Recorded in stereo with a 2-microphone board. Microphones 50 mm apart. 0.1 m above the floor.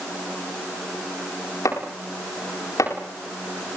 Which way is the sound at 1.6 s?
90° left.